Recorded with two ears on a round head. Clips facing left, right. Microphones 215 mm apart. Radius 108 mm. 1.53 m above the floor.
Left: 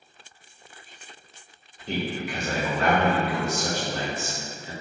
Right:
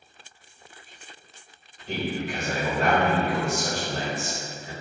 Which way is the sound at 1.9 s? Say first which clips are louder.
Even; 55° left (ahead or behind).